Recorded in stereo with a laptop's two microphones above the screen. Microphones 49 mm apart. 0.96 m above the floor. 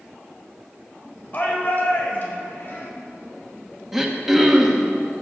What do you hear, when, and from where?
1.3 s a shout: 35° left (ahead or behind), 4 m; by 2.9 s 45° left (ahead or behind), 5 m
3.9 s throat clearing: 10° right (ahead or behind), 1.4 m